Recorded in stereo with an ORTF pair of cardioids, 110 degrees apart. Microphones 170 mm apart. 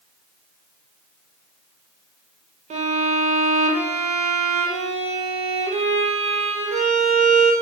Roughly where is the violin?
Ahead right.